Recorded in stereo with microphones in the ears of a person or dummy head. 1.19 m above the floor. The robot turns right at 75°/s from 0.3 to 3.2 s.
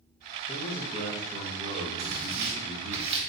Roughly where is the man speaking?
Behind left.